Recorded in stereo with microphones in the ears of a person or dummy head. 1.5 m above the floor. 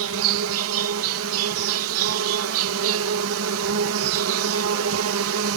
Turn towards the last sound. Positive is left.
turn(degrees=-80)